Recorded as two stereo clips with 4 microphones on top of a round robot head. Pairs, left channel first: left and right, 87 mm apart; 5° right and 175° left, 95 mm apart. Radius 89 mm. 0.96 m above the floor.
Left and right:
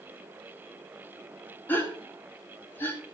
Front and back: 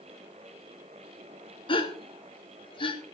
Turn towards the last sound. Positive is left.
turn(degrees=20)